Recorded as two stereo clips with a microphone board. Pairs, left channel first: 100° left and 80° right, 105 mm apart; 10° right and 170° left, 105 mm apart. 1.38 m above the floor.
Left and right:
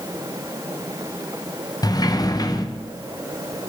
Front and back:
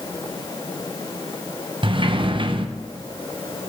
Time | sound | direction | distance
1.8 | a sliding door | 150° left | 0.6 m